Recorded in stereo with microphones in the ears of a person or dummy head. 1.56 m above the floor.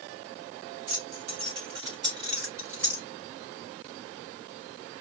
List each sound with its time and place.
0.9 s keys jangling: 45° right (ahead or behind), 3.5 m; by 3.0 s 15° right (ahead or behind), 4.5 m